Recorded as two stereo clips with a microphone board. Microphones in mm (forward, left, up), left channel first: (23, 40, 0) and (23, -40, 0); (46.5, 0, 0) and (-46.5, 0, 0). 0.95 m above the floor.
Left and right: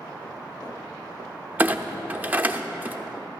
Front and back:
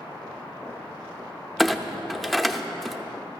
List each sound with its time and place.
1.6 s a clunk: 85° right, 0.5 m